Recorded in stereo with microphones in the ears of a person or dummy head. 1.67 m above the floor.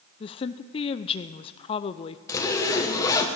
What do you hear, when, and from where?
0.2 s a woman speaking: 30° left (ahead or behind), 0.6 m
2.3 s a zipper: 20° left (ahead or behind), 1.6 m